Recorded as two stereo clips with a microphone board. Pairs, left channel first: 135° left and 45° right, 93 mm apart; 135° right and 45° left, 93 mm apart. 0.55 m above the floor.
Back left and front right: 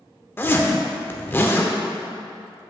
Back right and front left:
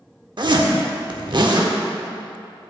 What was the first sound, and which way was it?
A zipper, 70° left.